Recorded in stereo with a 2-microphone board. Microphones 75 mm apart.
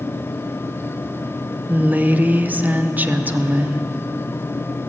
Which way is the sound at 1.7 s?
20° right (ahead or behind).